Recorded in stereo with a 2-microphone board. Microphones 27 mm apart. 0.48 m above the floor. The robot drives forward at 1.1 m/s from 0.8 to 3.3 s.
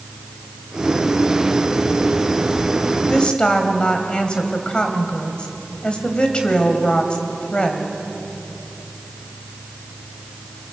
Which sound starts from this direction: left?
A woman speaking, at 3.1 s.